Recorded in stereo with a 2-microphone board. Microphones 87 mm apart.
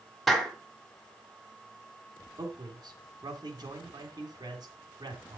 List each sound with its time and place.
0.3 s a clap: centre (ahead or behind), 1.7 m
2.4 s a man speaking: 50° right (ahead or behind), 2.5 m